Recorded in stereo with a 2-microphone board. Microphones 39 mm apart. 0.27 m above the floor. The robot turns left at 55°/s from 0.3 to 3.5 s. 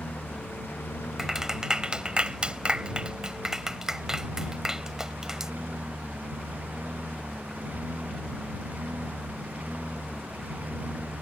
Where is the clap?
10° right (ahead or behind); by 5.5 s 15° right (ahead or behind).